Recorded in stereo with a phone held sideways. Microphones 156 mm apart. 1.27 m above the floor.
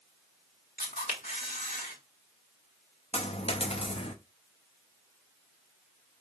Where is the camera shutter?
60° left (ahead or behind), 1.8 m.